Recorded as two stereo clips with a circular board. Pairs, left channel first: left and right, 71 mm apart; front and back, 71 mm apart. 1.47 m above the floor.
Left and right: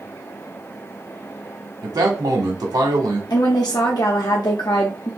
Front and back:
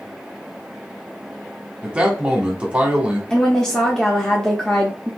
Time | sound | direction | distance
1.8 | a man speaking | 105° right | 1.0 m
3.3 | a woman speaking | 80° left | 0.6 m